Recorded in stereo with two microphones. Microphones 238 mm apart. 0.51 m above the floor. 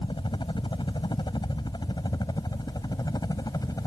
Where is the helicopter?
20° left (ahead or behind); by 3.9 s 15° left (ahead or behind).